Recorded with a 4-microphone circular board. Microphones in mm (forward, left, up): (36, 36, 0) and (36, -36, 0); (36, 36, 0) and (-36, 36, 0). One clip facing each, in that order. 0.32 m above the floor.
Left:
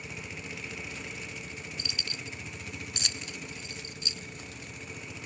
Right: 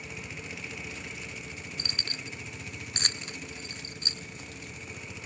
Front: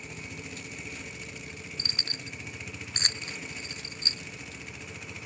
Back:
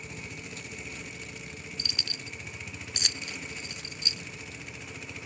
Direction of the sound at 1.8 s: 50° right.